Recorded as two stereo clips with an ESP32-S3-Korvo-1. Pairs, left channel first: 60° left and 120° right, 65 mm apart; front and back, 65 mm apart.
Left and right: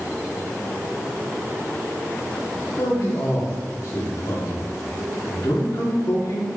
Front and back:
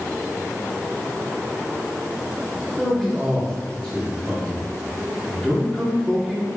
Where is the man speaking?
105° left, 3.5 m.